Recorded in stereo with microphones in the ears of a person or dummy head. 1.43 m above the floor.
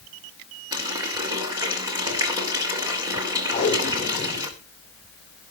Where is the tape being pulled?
20° left (ahead or behind), 4.5 m.